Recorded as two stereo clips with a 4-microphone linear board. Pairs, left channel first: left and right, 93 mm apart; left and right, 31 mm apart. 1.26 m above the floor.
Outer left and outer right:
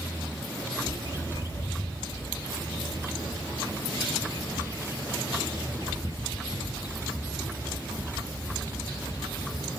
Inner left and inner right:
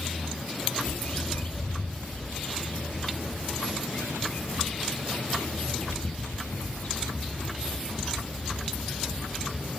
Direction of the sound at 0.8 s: 50° left (ahead or behind).